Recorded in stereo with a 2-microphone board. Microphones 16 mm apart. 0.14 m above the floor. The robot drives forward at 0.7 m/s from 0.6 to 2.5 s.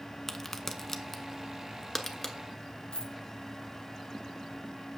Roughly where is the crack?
Centre.